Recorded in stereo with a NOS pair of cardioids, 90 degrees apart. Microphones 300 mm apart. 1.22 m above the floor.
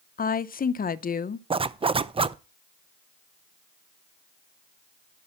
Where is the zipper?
20° right, 0.5 m.